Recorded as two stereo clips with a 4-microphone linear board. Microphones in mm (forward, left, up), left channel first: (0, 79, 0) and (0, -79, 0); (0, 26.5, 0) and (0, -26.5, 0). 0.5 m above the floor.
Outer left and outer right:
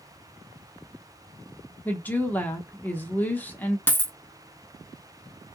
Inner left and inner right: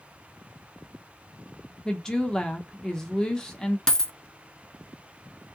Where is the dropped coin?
15° left (ahead or behind), 0.6 m.